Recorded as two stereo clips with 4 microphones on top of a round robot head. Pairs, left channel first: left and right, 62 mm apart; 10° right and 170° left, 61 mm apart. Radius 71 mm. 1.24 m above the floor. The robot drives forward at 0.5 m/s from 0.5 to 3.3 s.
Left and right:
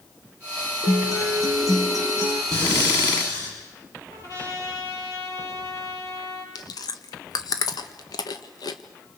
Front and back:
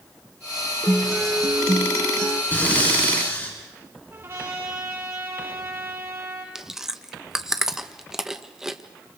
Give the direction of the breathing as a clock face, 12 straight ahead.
10 o'clock.